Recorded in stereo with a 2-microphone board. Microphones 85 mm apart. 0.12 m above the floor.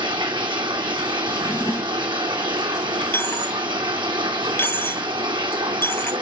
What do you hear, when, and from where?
0.0 s running water: 75° right (ahead or behind), 1.9 m
1.3 s a drawer: 40° left (ahead or behind), 1.1 m
3.1 s a dropped coin: 30° left (ahead or behind), 1.0 m